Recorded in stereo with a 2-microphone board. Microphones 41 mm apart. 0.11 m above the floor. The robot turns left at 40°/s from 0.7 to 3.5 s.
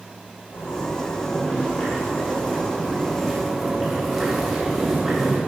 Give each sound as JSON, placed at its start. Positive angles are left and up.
{"t": 0.5, "sound": "a zipper", "azimuth_deg": 115, "distance_m": 6.0}